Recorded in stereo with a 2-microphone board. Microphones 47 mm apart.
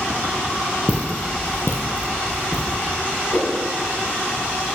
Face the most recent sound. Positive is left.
turn(degrees=80)